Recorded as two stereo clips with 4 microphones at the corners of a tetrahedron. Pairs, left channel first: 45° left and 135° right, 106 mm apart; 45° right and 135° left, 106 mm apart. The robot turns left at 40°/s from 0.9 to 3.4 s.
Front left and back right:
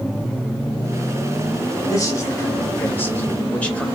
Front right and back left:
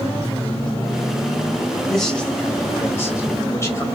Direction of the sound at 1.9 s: 40° left.